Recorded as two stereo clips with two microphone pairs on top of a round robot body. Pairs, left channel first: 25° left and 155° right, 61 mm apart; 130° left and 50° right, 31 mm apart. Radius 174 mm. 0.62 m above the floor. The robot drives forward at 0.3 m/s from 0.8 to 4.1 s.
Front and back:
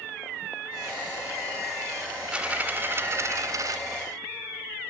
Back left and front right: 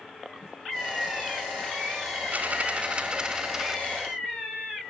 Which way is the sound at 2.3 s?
80° right.